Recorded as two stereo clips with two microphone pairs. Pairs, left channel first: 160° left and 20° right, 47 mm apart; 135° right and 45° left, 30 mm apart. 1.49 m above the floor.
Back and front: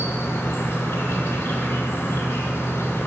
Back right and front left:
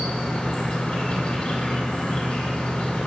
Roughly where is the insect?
Behind.